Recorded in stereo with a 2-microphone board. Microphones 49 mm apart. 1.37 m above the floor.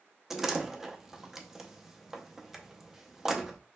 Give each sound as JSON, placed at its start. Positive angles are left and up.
{"t": 0.3, "sound": "a door slam", "side_deg": -10, "distance_m": 0.6}